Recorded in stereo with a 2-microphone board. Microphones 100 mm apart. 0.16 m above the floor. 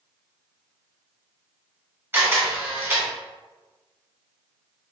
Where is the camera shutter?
25° right (ahead or behind), 1.6 m.